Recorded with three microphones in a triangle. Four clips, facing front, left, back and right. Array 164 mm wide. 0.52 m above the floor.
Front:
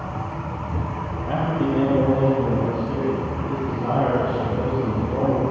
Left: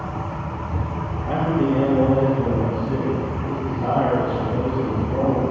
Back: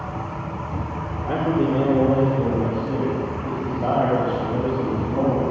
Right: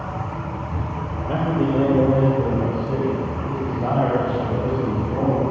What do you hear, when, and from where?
1.3 s a man speaking: 155° right, 1.9 m; by 5.5 s 135° right, 4.5 m